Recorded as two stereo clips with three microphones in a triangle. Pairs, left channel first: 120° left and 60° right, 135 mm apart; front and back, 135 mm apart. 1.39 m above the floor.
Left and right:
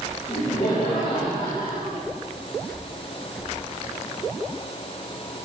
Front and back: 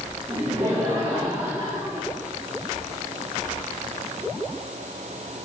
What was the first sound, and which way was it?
Laughter, 125° left.